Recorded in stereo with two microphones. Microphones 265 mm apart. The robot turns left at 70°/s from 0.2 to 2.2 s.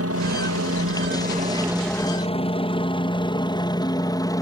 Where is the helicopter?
55° right (ahead or behind); by 4.4 s 10° left (ahead or behind).